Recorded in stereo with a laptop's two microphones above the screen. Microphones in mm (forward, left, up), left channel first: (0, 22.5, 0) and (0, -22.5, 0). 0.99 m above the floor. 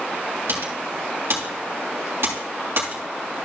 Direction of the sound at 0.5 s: 60° right (ahead or behind).